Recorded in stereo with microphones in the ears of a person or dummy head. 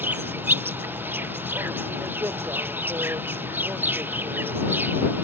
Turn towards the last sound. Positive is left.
turn(degrees=-10)  # may be behind; listen again after turning